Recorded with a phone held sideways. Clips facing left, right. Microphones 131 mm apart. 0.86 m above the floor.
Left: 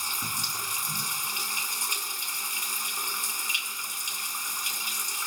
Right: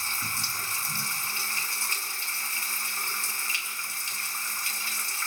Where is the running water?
20° left (ahead or behind), 2 m.